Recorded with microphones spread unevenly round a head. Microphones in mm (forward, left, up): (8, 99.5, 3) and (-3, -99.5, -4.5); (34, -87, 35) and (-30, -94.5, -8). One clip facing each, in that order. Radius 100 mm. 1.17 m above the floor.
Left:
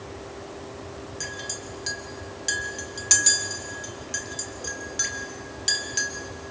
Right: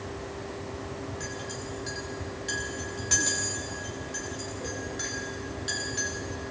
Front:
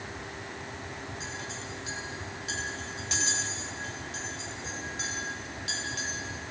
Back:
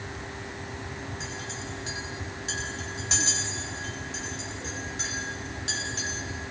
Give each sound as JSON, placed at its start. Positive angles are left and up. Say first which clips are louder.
{"t": 1.2, "sound": "a clink", "louder": "right 1 dB, back 2 dB", "azimuth_deg": 115, "distance_m": 2.0}